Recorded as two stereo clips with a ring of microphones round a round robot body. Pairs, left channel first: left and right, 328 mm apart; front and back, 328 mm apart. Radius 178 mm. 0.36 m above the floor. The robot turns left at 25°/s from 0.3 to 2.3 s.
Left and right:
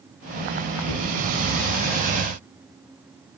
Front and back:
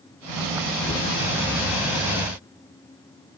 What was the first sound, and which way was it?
A cupboard door, 70° left.